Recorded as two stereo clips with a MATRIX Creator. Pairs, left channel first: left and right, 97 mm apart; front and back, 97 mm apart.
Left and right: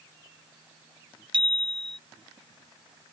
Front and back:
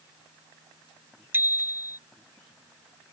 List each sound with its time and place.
1.3 s a bicycle bell: 115° right